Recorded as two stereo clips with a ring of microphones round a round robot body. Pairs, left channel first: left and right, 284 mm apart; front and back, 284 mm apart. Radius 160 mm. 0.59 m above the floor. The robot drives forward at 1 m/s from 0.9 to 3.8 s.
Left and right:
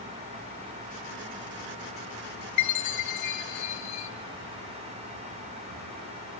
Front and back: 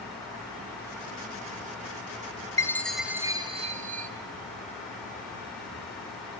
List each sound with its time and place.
2.6 s a chime: 80° left, 1.8 m; by 4.1 s 115° left, 2 m